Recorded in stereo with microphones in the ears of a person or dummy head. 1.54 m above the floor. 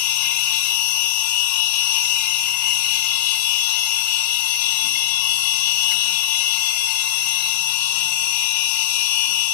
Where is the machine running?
50° left (ahead or behind), 0.9 m.